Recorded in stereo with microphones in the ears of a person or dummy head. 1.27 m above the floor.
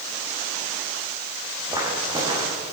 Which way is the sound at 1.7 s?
25° right (ahead or behind).